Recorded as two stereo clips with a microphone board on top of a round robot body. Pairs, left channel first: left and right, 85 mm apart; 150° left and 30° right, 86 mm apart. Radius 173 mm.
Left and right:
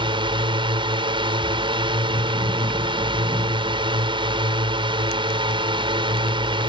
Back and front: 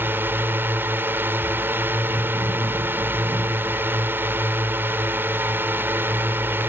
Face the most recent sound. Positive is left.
turn(degrees=-95)